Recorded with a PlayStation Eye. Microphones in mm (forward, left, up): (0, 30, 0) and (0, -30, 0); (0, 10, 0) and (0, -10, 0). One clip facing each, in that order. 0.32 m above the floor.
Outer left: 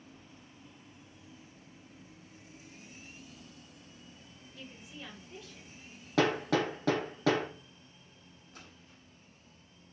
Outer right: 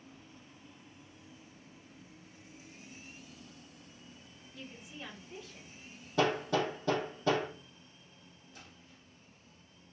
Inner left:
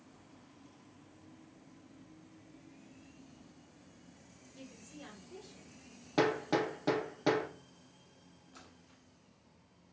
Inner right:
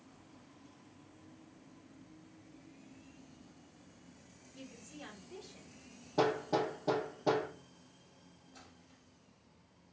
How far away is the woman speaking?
About 1.0 m.